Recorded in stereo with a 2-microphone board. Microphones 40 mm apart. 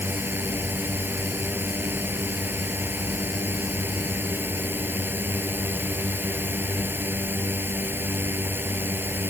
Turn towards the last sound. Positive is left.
turn(degrees=-55)  # may be behind; listen again after turning